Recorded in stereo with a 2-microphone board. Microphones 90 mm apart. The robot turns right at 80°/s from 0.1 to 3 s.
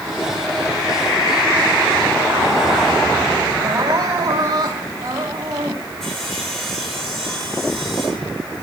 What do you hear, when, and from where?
3.6 s crying: 40° right (ahead or behind), 3 m
6.0 s sawing: 5° left (ahead or behind), 8 m